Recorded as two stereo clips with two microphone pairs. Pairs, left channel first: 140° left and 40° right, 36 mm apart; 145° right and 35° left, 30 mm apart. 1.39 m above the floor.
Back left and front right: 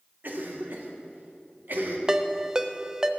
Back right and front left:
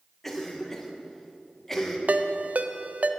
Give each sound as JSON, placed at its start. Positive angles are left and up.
{"t": 0.2, "sound": "a cough", "azimuth_deg": -65, "distance_m": 1.8}
{"t": 2.1, "sound": "a ringtone", "azimuth_deg": 20, "distance_m": 0.6}